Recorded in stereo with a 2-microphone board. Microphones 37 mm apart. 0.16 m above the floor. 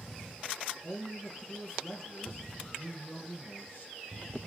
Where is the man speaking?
45° left (ahead or behind), 1.8 m.